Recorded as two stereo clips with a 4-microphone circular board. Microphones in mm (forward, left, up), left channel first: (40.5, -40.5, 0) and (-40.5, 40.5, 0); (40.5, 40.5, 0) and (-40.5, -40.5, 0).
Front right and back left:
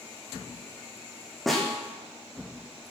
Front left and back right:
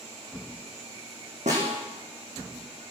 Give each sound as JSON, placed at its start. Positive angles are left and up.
{"t": 1.5, "sound": "a snare drum", "azimuth_deg": -135, "distance_m": 5.0}